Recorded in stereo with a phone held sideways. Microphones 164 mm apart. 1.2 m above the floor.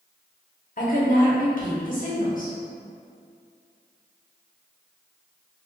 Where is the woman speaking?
50° left (ahead or behind), 0.9 m.